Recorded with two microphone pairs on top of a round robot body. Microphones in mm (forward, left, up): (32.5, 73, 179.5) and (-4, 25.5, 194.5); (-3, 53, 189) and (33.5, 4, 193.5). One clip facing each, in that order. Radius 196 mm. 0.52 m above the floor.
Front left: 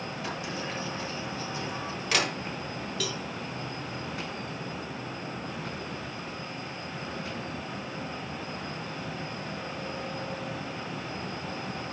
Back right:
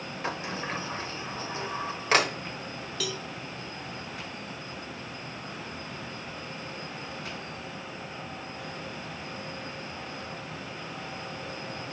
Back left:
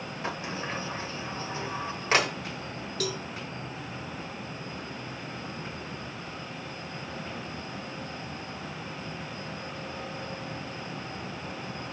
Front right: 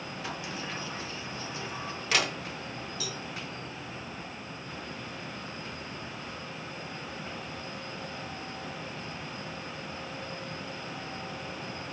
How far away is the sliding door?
About 1.0 m.